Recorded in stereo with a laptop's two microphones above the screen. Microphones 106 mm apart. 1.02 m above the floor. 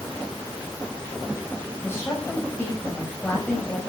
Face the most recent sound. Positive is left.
turn(degrees=20)  # may be behind; listen again after turning